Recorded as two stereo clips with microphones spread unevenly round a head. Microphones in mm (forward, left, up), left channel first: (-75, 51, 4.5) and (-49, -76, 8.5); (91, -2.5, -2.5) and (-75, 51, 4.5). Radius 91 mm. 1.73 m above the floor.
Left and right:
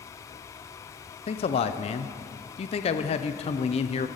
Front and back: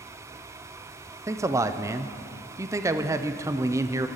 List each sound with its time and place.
1.3 s a man speaking: 100° left, 0.6 m